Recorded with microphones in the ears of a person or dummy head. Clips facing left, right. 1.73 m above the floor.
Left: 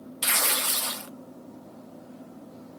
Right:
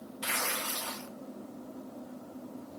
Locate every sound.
0.2 s tearing paper: 50° left (ahead or behind), 0.6 m